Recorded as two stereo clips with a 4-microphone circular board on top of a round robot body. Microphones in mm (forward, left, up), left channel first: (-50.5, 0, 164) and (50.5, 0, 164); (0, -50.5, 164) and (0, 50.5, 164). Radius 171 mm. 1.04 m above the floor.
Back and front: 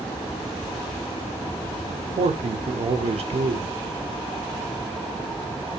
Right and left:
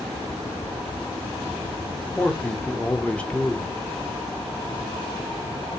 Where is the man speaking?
10° right, 0.7 m.